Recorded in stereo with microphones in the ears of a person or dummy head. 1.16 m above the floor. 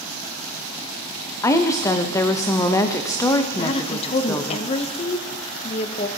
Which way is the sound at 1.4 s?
20° left (ahead or behind).